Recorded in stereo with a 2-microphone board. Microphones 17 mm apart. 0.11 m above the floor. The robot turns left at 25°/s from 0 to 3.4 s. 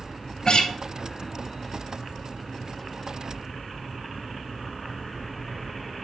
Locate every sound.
0.5 s a guitar: 50° left (ahead or behind), 0.9 m